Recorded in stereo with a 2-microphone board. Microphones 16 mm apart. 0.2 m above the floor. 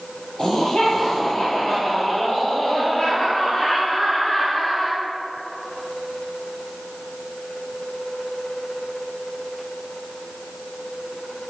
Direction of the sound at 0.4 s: 60° left (ahead or behind).